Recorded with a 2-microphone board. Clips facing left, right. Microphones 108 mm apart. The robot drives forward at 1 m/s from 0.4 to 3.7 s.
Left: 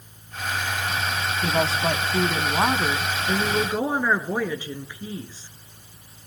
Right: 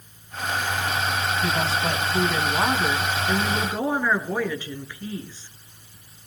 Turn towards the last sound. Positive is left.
turn(degrees=15)  # may be behind; listen again after turning